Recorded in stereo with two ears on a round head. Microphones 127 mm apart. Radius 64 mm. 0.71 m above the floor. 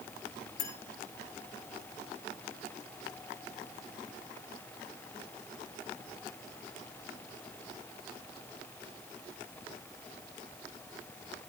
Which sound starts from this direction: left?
A clink, at 0.6 s.